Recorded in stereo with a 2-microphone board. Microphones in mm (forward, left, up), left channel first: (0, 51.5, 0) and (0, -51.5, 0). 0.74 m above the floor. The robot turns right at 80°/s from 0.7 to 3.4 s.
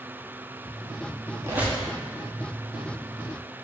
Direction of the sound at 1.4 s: 30° right.